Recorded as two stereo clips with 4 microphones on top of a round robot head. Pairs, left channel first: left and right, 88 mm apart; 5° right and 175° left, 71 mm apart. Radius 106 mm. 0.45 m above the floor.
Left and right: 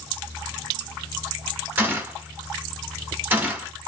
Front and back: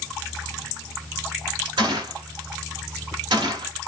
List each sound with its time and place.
1.8 s a gunshot: 160° right, 1.3 m